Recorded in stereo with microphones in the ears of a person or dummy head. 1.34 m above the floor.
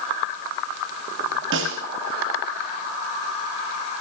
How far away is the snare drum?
About 6 m.